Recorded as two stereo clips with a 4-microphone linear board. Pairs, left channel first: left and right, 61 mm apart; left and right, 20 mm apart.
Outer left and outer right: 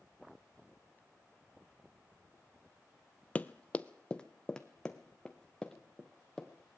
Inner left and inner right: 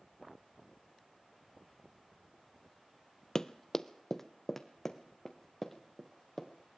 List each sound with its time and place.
3.4 s running footsteps: 25° left (ahead or behind), 0.6 m; by 6.5 s 5° left (ahead or behind), 3 m